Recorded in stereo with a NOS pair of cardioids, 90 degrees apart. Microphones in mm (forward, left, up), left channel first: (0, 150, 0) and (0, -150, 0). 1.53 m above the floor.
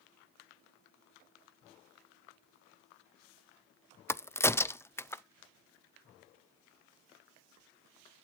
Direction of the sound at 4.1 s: 10° left.